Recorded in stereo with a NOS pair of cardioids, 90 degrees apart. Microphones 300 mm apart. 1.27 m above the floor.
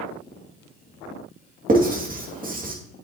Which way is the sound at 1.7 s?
30° right.